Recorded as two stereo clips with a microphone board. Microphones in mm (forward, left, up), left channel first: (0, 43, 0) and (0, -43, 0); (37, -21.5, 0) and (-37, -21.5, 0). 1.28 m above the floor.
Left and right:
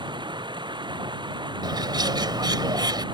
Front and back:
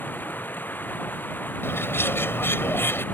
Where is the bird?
60° right.